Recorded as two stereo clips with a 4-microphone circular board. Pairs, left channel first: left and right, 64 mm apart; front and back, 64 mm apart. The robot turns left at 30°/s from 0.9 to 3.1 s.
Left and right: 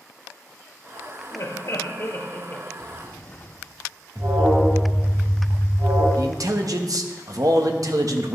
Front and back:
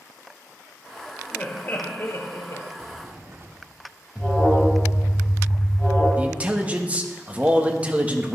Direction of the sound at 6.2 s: 110° right.